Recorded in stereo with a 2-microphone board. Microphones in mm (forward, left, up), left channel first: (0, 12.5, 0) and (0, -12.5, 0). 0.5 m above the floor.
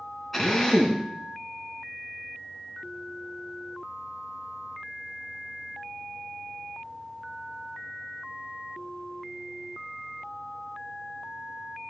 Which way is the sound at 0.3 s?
5° left (ahead or behind).